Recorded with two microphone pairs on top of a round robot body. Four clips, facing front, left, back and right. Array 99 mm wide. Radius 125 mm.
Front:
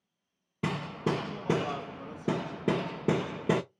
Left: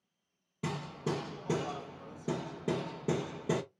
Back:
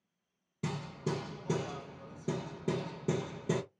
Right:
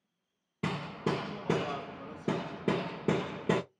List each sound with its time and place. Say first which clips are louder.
0.6 s hammering: right 3 dB, front 6 dB; 30° right, 0.6 m